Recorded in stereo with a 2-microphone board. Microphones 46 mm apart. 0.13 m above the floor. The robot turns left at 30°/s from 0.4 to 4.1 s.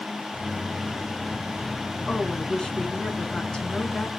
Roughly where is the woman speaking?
Centre.